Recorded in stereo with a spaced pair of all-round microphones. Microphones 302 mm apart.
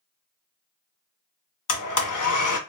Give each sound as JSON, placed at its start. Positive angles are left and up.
{"t": 1.7, "sound": "a blender", "side_deg": 70, "distance_m": 0.5}